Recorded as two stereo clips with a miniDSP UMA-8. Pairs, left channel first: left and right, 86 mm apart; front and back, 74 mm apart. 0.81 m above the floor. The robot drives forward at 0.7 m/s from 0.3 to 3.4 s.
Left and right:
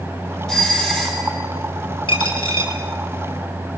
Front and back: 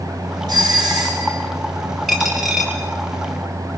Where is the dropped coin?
90° left, 4 m; by 2.7 s 100° left, 4 m.